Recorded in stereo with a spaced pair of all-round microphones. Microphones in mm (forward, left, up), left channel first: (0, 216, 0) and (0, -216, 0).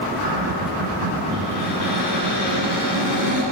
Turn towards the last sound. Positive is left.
turn(degrees=-75)  # may be behind; listen again after turning